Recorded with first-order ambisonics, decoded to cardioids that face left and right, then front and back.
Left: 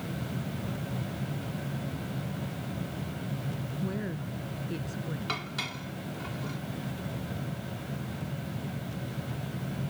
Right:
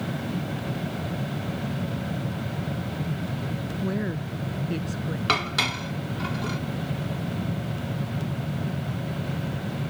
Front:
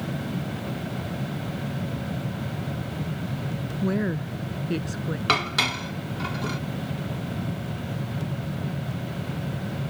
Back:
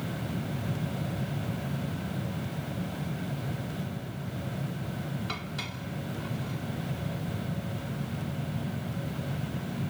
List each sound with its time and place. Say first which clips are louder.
3.8 s a woman speaking: right 6 dB, front 12 dB; 20° right
5.3 s dishes clattering: right 12 dB, front 18 dB; 35° right